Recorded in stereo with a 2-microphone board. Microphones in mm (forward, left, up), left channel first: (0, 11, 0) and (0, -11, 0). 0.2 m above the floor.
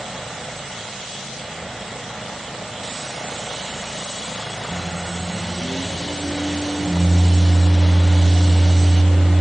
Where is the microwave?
25° left (ahead or behind), 0.9 m.